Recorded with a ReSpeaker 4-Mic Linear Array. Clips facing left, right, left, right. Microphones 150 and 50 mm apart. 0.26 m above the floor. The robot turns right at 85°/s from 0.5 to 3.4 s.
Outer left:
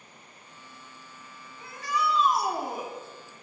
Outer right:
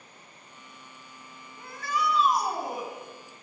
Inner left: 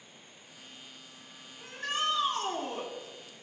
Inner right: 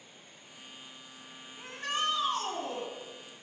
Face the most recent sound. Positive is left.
turn(degrees=90)